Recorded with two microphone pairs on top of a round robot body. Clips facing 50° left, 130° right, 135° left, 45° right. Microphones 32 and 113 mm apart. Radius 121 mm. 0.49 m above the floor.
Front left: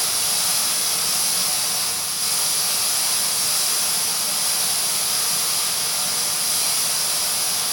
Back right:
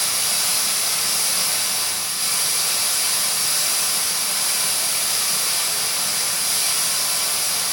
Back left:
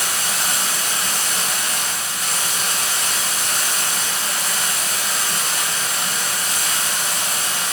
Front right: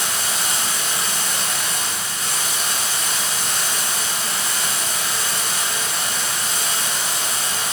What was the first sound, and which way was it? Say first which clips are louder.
Running water: back right 1 dB, back left 1 dB; 175° left.